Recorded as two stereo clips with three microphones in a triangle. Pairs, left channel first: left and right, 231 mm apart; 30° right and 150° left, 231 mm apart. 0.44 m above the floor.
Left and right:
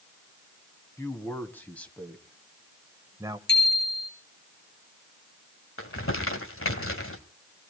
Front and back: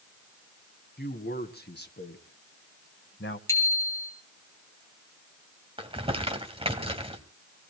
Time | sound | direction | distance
1.0 | a man speaking | 10° left | 2.5 m
3.5 | a bicycle bell | 45° left | 6.5 m
5.8 | crumpling | 85° left | 1.9 m